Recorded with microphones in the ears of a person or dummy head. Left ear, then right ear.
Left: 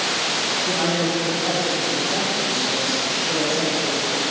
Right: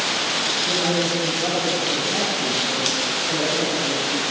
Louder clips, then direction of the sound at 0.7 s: Even; centre (ahead or behind).